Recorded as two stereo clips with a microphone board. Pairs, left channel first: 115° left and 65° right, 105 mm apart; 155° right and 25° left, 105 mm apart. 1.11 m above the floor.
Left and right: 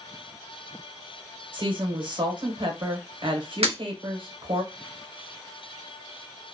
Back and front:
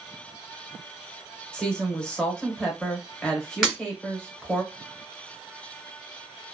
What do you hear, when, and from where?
1.5 s a woman speaking: 80° right, 1.0 m
3.6 s breaking glass: 65° right, 1.0 m